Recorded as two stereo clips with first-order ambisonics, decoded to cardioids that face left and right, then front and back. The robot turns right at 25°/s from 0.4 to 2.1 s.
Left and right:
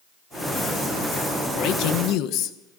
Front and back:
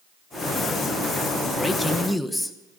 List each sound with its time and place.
1.5 s a man speaking: 70° left, 1.2 m; by 2.5 s 85° left, 1.2 m